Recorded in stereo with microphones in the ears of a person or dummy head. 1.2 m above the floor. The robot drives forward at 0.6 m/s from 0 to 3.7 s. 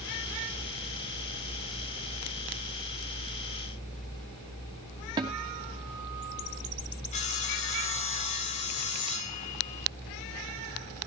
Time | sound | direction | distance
5.2 | a guitar | 25° right (ahead or behind) | 2.5 m
7.1 | sawing | 35° left (ahead or behind) | 1.0 m